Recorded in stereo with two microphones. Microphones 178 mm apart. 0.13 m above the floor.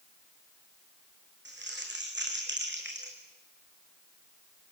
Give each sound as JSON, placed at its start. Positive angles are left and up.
{"t": 1.4, "sound": "crumpling", "side_deg": -80, "distance_m": 3.0}